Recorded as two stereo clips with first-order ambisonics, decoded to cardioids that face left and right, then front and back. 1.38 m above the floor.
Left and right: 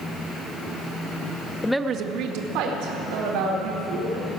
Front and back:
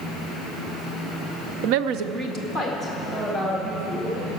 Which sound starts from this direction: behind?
A woman speaking, at 1.6 s.